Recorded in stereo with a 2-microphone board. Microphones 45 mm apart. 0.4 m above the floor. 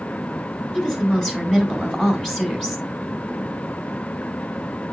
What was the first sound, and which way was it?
A woman speaking, 5° left (ahead or behind).